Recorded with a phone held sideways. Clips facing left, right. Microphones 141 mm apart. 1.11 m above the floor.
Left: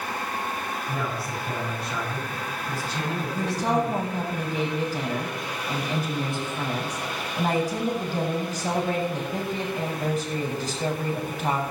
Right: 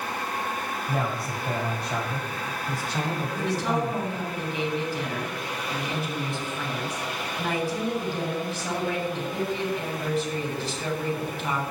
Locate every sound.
0.9 s a man speaking: 50° right (ahead or behind), 7 m
3.4 s a woman speaking: 40° left (ahead or behind), 7.5 m